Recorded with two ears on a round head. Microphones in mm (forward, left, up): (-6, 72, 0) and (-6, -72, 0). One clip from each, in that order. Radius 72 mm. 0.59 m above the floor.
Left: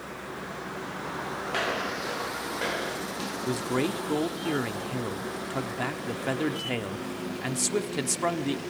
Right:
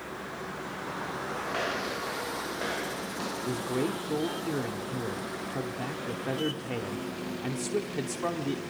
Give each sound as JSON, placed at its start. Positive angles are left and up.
{"t": 1.5, "sound": "footsteps", "side_deg": 35, "distance_m": 8.0}
{"t": 3.5, "sound": "a man speaking", "side_deg": 40, "distance_m": 1.0}